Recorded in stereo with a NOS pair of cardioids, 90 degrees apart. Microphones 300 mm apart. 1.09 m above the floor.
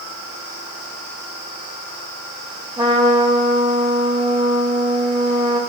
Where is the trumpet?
15° right, 1.5 m.